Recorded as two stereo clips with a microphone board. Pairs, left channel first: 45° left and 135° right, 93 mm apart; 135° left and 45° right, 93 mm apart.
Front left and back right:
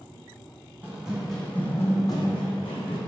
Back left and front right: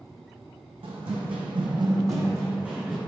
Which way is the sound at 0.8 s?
60° right.